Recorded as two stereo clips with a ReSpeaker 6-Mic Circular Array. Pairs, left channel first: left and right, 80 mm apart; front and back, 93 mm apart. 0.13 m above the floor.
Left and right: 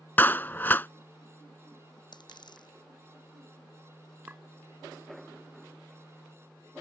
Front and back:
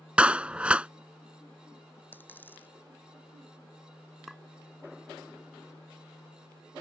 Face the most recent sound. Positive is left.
turn(degrees=-95)